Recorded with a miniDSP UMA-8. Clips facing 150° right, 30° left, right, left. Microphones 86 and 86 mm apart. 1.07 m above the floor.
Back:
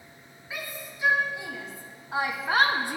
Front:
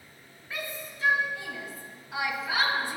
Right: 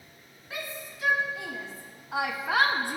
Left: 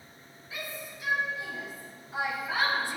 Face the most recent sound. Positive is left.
turn(degrees=-130)